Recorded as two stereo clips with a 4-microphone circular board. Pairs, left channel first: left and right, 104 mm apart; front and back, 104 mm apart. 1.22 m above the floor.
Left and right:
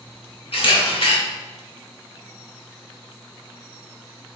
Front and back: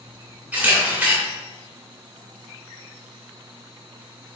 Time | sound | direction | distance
0.5 | a camera shutter | 105° left | 2.5 m